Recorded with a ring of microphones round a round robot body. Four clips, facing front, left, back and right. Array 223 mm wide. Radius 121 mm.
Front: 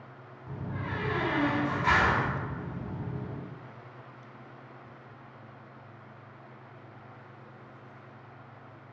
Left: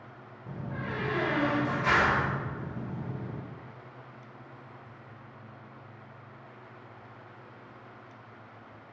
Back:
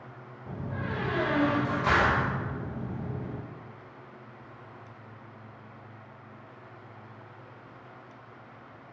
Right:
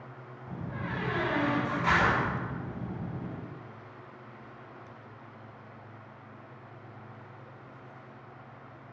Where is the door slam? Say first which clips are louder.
Left 1 dB, back 2 dB; 145° left, 2 m.